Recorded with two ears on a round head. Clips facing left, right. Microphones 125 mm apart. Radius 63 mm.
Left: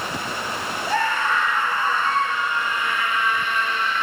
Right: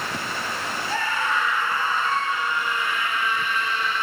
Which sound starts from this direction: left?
A scream, at 0.9 s.